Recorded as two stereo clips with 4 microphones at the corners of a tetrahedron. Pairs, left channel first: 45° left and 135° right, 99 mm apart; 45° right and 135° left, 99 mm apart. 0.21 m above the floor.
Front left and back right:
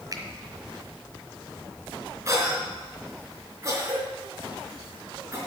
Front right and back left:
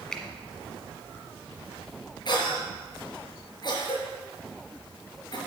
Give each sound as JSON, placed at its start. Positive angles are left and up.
{"t": 0.1, "sound": "a finger snap", "azimuth_deg": -125, "distance_m": 1.5}
{"t": 2.2, "sound": "a cough", "azimuth_deg": -80, "distance_m": 3.5}